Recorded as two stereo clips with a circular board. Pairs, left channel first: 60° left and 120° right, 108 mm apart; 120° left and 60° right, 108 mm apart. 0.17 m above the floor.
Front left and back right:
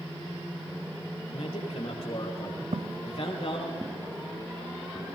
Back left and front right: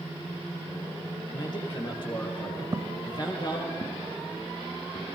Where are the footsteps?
115° right, 0.6 m; by 5.0 s 140° left, 3 m.